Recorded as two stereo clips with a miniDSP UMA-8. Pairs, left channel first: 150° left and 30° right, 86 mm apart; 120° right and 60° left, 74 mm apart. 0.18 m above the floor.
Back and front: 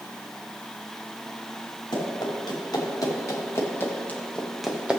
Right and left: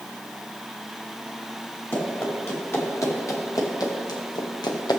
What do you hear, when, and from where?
1.9 s running footsteps: 175° right, 4.5 m; by 5.0 s 105° right, 1.9 m